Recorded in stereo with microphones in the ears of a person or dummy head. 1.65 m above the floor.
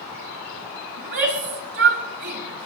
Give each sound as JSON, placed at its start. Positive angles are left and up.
{"t": 1.0, "sound": "a shout", "side_deg": -55, "distance_m": 5.5}